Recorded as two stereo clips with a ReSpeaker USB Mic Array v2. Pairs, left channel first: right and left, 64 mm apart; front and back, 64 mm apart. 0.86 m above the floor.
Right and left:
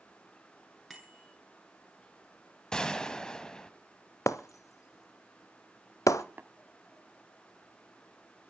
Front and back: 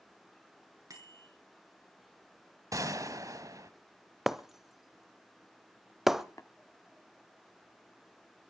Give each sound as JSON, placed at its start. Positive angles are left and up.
{"t": 0.9, "sound": "a bicycle bell", "azimuth_deg": 180, "distance_m": 7.5}
{"t": 2.7, "sound": "a gunshot", "azimuth_deg": -165, "distance_m": 1.4}
{"t": 4.3, "sound": "breaking glass", "azimuth_deg": -95, "distance_m": 1.0}
{"t": 6.4, "sound": "tapping", "azimuth_deg": 35, "distance_m": 1.0}